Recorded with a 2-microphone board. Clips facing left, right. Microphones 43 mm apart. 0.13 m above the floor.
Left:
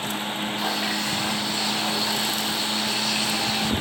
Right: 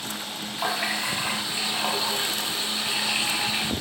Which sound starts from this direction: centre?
A running tap, at 0.6 s.